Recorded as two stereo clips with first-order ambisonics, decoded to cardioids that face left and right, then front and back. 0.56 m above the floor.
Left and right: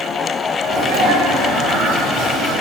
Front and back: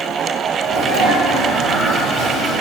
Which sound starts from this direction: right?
A sneeze, at 0.6 s.